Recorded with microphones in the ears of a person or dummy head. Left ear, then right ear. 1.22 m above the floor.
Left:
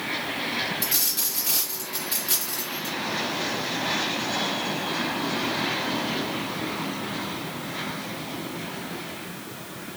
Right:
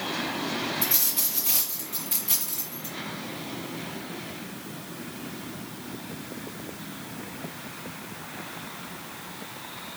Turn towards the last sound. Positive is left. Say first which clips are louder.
# left 2 dB
turn(degrees=-30)  # may be behind; listen again after turning